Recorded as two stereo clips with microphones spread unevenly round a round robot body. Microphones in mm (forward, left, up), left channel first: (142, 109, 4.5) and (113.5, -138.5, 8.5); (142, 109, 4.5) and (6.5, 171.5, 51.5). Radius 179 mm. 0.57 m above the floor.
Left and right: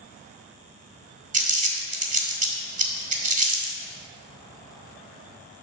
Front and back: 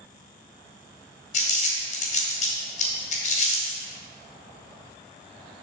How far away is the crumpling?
About 1.8 m.